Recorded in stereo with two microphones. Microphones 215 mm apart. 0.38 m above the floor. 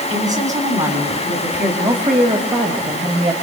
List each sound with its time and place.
0.1 s a woman speaking: 35° right (ahead or behind), 3.5 m; by 3.3 s 30° right (ahead or behind), 2 m